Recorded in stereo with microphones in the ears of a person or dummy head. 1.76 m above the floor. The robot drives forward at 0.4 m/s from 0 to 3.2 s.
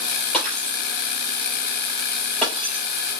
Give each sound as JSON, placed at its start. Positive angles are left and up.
{"t": 0.3, "sound": "breaking glass", "side_deg": 5, "distance_m": 4.0}